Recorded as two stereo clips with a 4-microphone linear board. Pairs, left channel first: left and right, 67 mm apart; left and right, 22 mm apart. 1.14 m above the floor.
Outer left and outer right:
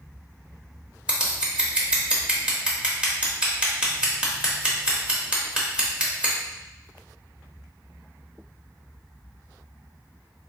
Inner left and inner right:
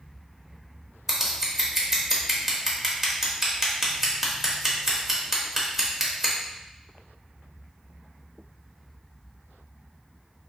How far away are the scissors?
About 0.9 m.